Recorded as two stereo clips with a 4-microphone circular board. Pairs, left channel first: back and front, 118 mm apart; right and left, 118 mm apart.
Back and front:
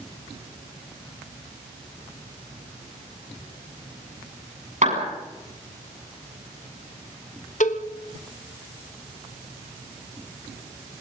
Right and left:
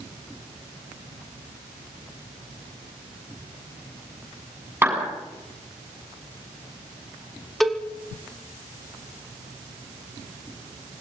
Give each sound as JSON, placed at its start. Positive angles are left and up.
{"t": 4.8, "sound": "a clap", "azimuth_deg": 15, "distance_m": 8.0}
{"t": 7.6, "sound": "a cowbell", "azimuth_deg": 180, "distance_m": 1.4}